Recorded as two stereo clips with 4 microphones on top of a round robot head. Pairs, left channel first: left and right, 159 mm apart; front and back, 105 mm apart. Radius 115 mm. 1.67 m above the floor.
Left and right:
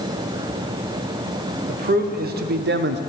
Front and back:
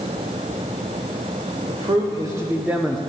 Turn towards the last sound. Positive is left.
turn(degrees=-85)